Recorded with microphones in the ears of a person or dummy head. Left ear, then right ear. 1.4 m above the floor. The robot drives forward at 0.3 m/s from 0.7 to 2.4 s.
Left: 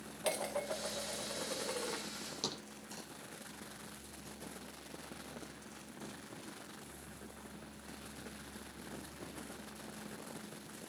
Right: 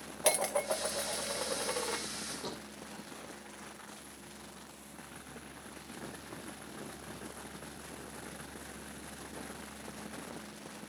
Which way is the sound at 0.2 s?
20° right (ahead or behind).